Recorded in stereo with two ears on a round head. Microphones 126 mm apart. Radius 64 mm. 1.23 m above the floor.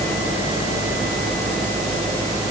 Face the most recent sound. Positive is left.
No sound to turn to.